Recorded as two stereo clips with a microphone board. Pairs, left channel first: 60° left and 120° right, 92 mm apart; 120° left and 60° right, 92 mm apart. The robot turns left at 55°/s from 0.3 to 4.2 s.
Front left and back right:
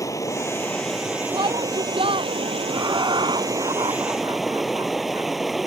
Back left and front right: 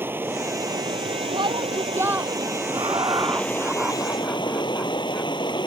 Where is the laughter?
70° right; by 5.3 s 155° right.